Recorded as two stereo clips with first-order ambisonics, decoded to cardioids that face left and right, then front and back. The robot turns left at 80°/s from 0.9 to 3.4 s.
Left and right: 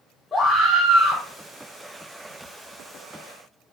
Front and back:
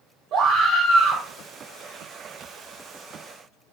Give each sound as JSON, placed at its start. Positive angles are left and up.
{"t": 0.3, "sound": "a scream", "azimuth_deg": 160, "distance_m": 0.9}